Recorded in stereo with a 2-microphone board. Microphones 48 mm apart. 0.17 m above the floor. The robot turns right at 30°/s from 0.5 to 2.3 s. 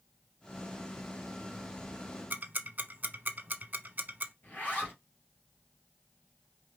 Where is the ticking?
40° right (ahead or behind), 0.7 m.